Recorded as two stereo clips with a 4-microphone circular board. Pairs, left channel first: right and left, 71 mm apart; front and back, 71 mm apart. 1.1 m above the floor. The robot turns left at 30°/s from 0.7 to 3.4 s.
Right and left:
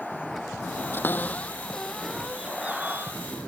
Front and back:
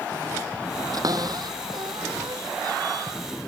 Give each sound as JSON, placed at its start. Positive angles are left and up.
{"t": 0.9, "sound": "a cupboard door", "azimuth_deg": -150}